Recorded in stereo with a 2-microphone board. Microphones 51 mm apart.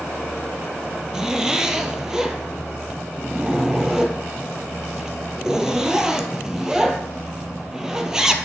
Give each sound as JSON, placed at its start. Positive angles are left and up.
{"t": 1.1, "sound": "a zipper", "side_deg": -10, "distance_m": 0.7}